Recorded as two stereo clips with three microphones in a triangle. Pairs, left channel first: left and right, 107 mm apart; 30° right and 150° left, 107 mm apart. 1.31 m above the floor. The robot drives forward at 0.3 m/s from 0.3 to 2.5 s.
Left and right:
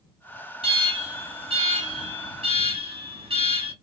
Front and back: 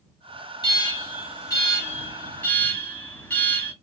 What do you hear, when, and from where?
0.6 s an alarm: 70° right, 1.2 m; by 3.7 s 100° right, 1.2 m